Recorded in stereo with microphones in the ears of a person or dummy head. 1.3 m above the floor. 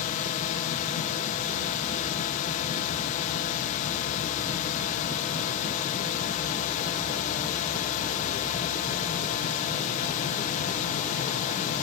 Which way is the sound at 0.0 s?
45° left (ahead or behind).